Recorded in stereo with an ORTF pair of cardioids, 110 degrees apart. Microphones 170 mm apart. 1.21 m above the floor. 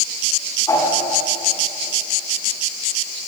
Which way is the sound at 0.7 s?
20° left.